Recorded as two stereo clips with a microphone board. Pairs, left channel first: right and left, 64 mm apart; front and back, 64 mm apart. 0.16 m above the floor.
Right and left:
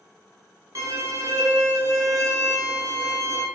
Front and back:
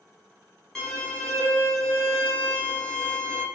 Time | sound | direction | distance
0.8 | a violin | 75° left | 0.9 m